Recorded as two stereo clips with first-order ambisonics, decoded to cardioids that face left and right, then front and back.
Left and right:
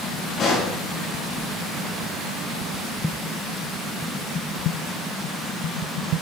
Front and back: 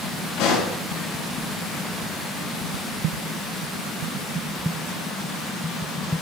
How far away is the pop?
About 9 m.